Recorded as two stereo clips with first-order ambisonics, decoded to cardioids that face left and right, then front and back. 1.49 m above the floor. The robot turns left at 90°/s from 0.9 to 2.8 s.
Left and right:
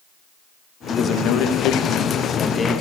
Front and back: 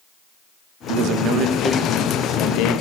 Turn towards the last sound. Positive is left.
turn(degrees=-5)